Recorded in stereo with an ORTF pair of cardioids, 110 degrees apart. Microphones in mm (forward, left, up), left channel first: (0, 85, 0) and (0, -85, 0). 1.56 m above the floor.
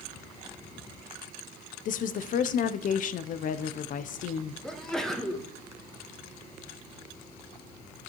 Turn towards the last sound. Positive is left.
turn(degrees=5)